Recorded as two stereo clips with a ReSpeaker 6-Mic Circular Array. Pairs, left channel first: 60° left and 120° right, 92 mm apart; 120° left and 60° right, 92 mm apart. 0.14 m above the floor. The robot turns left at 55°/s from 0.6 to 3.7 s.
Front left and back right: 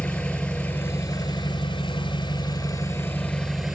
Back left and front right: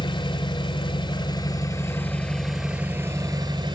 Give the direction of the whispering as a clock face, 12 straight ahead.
No whispering in this recording.